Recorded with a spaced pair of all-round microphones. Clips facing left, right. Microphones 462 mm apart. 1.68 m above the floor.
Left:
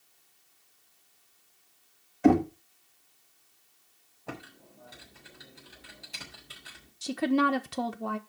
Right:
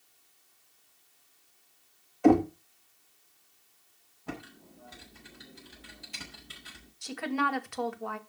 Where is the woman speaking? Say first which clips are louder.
Left 7 dB; 55° left (ahead or behind), 1.1 m.